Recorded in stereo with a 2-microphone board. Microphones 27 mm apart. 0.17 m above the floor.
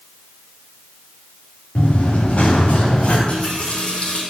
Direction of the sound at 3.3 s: 45° left (ahead or behind).